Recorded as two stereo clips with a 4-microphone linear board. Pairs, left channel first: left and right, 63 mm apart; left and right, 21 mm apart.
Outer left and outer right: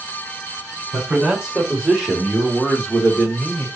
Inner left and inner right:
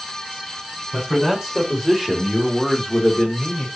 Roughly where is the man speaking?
Centre.